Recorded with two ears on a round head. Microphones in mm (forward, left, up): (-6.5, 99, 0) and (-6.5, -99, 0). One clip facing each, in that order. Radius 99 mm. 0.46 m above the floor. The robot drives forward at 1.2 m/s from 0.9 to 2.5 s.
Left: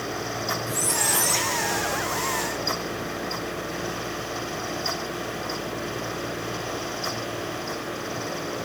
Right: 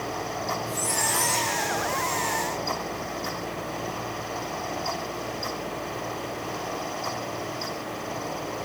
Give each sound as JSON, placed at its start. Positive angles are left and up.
{"t": 0.7, "sound": "a squeak", "side_deg": 20, "distance_m": 6.5}